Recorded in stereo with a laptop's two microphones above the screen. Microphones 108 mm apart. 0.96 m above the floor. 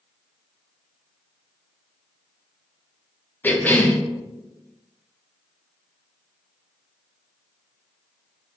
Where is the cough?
15° left (ahead or behind), 0.6 m.